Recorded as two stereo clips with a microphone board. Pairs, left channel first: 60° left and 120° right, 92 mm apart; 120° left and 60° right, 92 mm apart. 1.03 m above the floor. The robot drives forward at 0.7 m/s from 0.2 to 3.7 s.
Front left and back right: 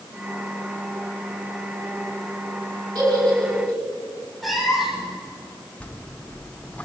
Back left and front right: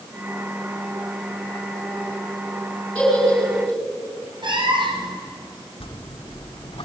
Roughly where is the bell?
Behind left.